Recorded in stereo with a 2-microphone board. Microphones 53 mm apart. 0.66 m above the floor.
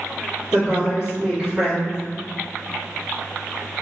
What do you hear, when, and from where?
0.5 s a woman speaking: 20° right (ahead or behind), 1.8 m